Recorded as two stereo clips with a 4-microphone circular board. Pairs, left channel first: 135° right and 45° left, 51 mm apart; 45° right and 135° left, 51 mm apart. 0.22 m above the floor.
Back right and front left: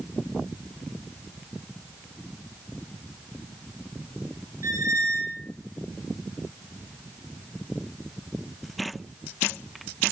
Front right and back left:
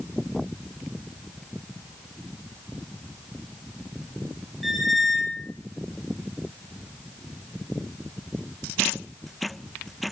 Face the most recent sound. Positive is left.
turn(degrees=45)